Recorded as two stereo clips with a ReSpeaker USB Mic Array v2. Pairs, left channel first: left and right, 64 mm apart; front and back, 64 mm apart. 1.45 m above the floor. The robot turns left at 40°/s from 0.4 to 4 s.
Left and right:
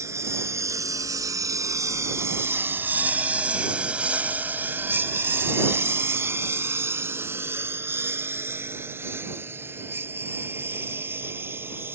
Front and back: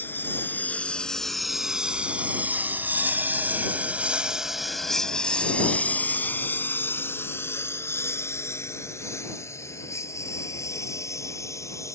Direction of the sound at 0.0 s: 55° right.